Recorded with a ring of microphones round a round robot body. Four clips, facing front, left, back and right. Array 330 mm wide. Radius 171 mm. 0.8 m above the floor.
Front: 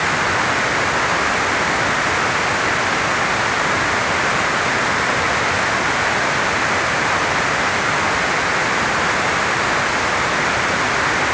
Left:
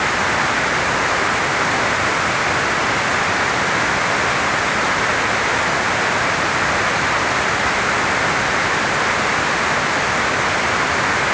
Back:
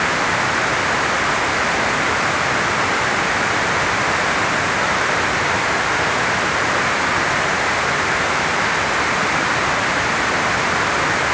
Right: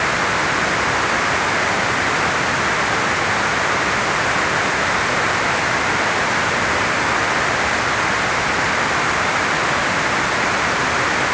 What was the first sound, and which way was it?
Only background noise.